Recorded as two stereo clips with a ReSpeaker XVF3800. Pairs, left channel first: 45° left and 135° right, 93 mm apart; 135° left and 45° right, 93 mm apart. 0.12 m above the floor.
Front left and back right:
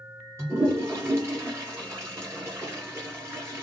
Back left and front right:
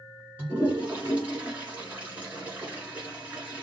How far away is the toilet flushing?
About 1.5 m.